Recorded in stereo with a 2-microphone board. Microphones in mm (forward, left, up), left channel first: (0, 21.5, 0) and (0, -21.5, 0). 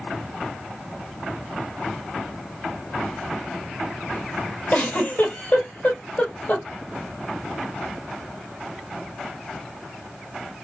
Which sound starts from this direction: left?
A giggle, at 4.7 s.